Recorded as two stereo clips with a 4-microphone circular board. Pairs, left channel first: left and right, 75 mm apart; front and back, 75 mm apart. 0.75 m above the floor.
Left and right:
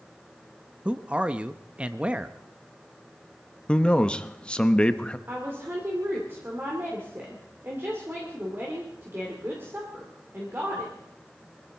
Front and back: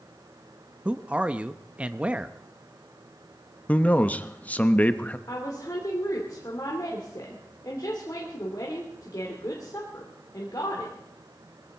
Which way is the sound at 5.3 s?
35° right.